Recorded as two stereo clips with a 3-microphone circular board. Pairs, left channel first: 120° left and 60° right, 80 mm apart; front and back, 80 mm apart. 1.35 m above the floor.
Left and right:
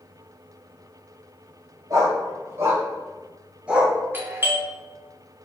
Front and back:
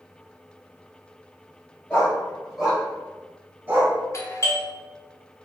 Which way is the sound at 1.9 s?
70° right.